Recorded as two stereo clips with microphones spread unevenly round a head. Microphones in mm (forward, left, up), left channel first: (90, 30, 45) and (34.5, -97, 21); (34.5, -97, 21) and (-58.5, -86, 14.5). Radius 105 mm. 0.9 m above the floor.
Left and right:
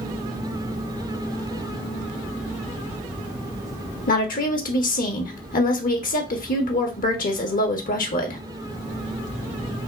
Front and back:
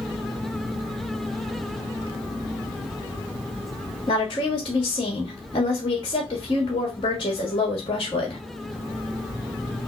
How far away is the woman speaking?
About 1.1 m.